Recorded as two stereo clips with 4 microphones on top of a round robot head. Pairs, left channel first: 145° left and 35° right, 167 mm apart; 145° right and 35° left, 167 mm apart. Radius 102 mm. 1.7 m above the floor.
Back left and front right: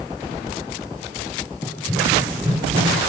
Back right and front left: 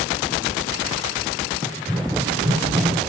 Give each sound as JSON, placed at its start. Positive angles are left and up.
{"t": 1.6, "sound": "running footsteps", "azimuth_deg": 170, "distance_m": 1.7}